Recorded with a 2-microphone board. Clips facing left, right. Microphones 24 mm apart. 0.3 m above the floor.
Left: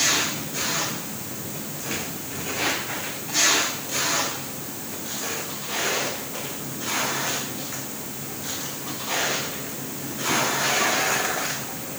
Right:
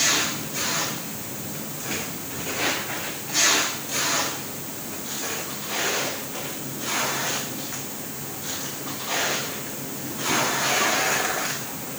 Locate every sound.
Only background noise.